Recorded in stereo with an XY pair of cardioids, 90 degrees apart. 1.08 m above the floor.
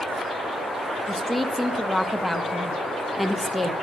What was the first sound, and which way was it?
A woman speaking, 5° right.